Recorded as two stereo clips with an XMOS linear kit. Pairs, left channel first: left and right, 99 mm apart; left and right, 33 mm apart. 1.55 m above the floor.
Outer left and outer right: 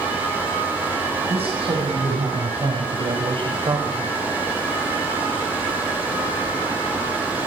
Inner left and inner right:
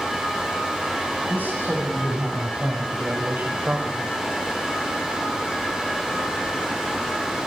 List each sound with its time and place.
1.3 s a man speaking: 85° right, 8.5 m; by 4.1 s 55° right (ahead or behind), 5.5 m